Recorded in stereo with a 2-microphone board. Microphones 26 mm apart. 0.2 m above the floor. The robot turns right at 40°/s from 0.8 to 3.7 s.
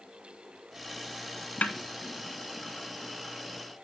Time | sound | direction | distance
1.6 | a snare drum | 55° left (ahead or behind) | 2.5 m